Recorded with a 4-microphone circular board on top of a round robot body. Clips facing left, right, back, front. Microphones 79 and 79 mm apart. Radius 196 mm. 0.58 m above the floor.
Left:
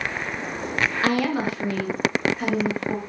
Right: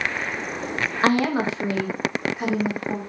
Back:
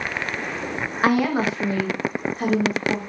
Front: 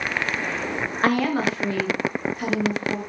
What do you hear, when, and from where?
1.0 s a woman speaking: 105° right, 1.2 m; by 3.0 s 165° right, 1.6 m